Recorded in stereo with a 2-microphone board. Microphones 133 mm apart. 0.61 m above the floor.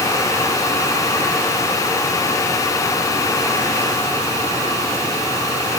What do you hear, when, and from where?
Only background noise.